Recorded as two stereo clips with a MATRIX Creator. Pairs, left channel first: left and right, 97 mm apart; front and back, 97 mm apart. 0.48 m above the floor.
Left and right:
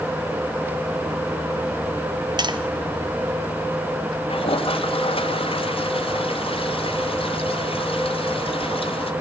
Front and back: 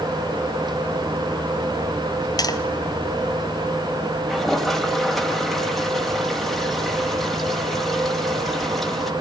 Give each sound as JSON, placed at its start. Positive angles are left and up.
{"t": 2.4, "sound": "tapping", "azimuth_deg": -50, "distance_m": 1.5}
{"t": 4.3, "sound": "a toilet flushing", "azimuth_deg": 90, "distance_m": 2.5}